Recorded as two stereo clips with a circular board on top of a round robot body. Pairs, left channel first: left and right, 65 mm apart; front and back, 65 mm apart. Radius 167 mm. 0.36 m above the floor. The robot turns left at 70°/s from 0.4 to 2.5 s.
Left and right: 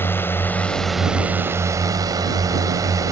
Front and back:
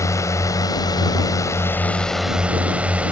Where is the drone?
40° left; by 3.1 s 110° right.